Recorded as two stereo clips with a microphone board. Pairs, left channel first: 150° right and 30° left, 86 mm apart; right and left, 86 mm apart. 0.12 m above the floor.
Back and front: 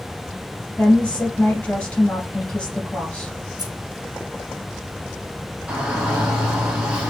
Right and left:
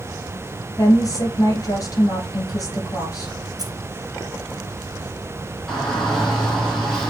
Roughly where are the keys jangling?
Ahead left.